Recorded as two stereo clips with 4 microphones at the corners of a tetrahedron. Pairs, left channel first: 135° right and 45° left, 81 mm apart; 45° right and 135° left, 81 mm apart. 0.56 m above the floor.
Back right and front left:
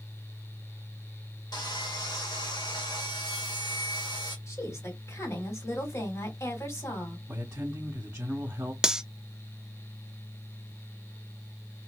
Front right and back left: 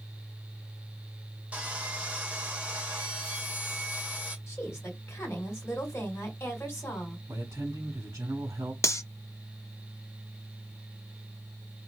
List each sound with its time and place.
1.5 s sawing: 155° right, 1.2 m
4.5 s a woman speaking: 95° right, 2 m
7.3 s a man speaking: 100° left, 1.4 m
8.8 s cutlery clinking: 30° right, 0.5 m